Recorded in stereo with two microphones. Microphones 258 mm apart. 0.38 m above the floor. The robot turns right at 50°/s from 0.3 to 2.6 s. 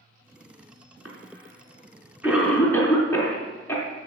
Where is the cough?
65° right (ahead or behind), 4.5 m; by 3.8 s 10° left (ahead or behind), 4.5 m.